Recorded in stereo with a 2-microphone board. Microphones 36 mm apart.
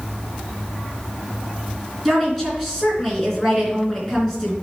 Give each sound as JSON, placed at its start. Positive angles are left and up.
{"t": 2.0, "sound": "a woman speaking", "side_deg": 5, "distance_m": 3.5}